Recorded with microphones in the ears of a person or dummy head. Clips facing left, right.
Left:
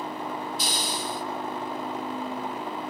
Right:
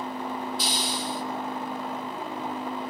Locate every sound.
0.6 s a hiss: 40° left (ahead or behind), 1.5 m